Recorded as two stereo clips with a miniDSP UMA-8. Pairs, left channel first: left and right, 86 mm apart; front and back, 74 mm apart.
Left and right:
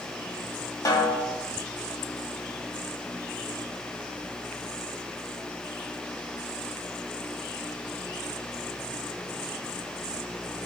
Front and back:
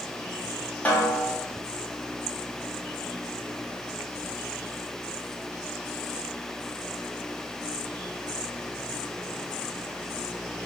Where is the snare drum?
65° left, 0.9 m.